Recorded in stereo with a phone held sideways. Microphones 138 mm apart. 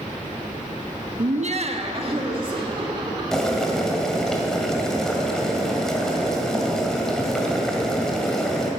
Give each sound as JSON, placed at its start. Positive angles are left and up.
{"t": 1.2, "sound": "laughter", "side_deg": -65, "distance_m": 0.6}
{"t": 3.3, "sound": "boiling", "side_deg": 5, "distance_m": 2.0}